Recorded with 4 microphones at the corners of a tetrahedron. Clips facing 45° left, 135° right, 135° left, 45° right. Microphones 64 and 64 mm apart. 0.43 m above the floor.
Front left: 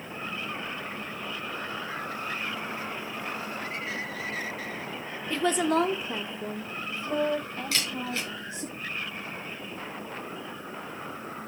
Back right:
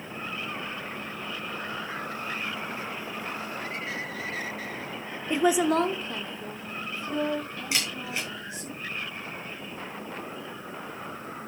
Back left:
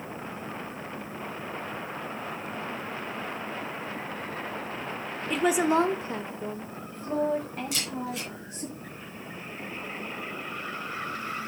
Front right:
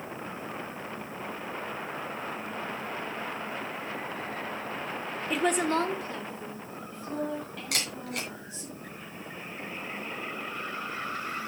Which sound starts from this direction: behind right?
A woman speaking, at 5.3 s.